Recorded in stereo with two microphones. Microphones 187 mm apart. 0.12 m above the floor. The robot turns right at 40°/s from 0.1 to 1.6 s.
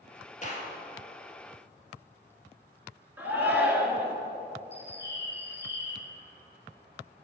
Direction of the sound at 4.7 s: 65° left (ahead or behind).